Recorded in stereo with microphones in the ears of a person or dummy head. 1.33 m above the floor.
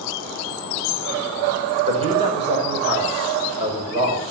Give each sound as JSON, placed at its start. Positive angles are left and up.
{"t": 1.9, "sound": "a man speaking", "side_deg": -35, "distance_m": 4.5}